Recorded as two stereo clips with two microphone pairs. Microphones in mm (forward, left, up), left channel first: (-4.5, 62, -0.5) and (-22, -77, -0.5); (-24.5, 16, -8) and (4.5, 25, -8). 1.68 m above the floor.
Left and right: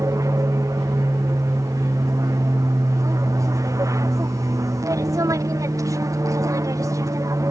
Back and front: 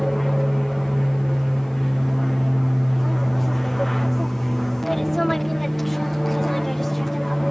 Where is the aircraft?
85° right.